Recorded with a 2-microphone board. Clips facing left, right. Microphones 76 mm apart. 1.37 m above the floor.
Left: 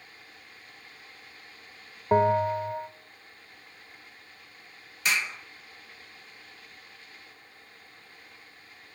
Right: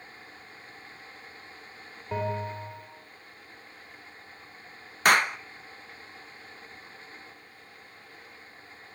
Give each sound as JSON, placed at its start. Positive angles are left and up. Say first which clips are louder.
{"t": 2.1, "sound": "a bell", "louder": "left 10 dB", "side_deg": 45, "distance_m": 1.9}
{"t": 5.0, "sound": "a clap", "louder": "right 8 dB", "side_deg": -55, "distance_m": 0.8}